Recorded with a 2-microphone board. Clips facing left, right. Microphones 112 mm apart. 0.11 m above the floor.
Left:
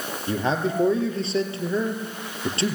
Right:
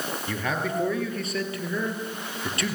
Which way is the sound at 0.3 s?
30° left (ahead or behind).